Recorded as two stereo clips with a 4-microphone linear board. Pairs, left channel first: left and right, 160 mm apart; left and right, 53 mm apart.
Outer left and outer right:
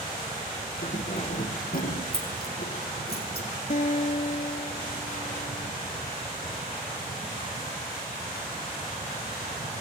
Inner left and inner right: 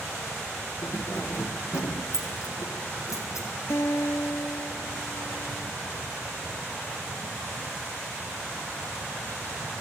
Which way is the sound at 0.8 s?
60° left (ahead or behind).